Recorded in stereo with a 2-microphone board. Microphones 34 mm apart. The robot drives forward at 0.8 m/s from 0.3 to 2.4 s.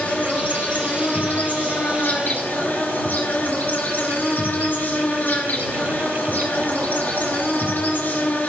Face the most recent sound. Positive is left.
turn(degrees=60)  # may be behind; listen again after turning